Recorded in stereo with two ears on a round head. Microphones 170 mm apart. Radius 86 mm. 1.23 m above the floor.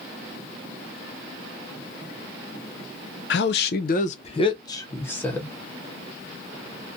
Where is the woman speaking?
65° left (ahead or behind), 0.6 m; by 5.5 s 5° left (ahead or behind), 1.1 m.